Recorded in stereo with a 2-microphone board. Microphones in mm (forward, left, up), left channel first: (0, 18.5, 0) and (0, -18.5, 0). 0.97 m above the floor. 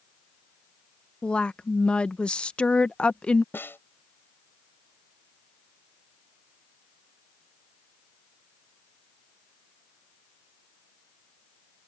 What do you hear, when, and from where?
1.2 s a woman speaking: 30° left (ahead or behind)
3.5 s a snare drum: 80° left